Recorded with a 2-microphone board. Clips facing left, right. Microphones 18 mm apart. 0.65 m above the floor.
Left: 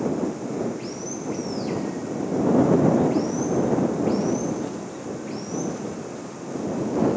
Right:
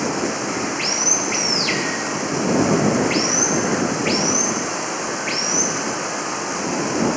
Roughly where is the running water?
Right.